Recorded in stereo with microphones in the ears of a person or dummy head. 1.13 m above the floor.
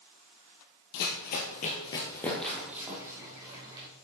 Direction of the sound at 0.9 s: 55° left (ahead or behind).